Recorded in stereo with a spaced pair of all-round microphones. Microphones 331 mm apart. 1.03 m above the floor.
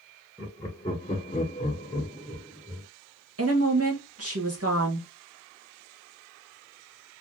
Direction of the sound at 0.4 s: 5° left (ahead or behind).